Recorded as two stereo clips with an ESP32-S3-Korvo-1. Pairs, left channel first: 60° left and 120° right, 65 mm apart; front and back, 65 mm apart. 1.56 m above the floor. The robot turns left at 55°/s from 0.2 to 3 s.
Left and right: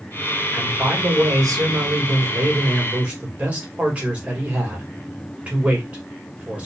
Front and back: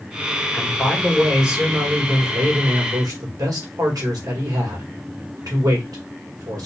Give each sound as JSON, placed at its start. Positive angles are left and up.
{"t": 0.5, "sound": "a man speaking", "azimuth_deg": -55, "distance_m": 2.0}